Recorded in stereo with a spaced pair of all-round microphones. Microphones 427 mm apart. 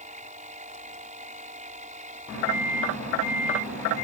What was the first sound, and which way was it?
A machine running, 15° right (ahead or behind).